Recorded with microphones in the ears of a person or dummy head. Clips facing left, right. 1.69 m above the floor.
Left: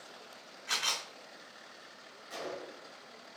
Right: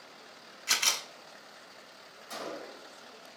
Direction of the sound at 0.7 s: 45° right (ahead or behind).